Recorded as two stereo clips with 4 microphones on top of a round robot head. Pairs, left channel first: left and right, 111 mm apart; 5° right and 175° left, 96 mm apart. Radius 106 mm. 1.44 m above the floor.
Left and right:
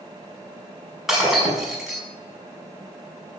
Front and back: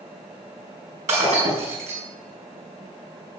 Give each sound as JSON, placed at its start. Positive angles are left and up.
{"t": 1.1, "sound": "breaking glass", "azimuth_deg": -175, "distance_m": 6.0}